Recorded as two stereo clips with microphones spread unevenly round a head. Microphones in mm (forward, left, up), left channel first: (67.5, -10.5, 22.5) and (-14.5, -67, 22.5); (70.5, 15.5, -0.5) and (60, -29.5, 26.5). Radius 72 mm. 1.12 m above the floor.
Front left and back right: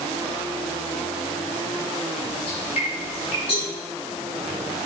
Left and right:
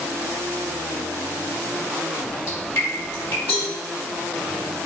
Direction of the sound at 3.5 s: 95° left.